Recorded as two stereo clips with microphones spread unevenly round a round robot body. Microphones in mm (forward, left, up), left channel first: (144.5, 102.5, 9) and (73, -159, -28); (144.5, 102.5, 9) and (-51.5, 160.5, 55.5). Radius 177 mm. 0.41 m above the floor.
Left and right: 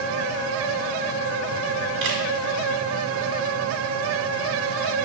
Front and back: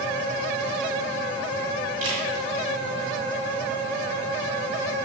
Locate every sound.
2.0 s a camera shutter: 155° right, 1.8 m